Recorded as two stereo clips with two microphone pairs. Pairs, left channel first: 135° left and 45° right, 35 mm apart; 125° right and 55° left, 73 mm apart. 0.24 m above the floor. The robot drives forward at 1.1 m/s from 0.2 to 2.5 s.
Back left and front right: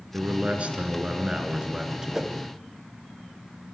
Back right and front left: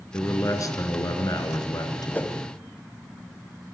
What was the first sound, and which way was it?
A man speaking, 85° right.